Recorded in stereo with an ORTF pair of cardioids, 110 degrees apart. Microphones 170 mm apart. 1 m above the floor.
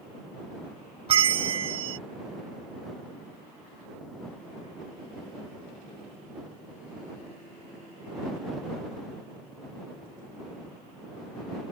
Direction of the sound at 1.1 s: 35° right.